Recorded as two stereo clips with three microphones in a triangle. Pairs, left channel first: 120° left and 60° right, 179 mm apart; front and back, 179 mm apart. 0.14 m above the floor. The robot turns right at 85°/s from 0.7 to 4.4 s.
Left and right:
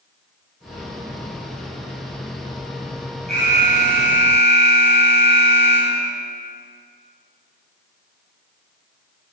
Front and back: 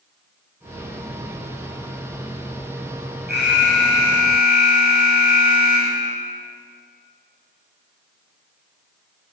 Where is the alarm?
150° left, 6 m; by 6.1 s 115° right, 6 m.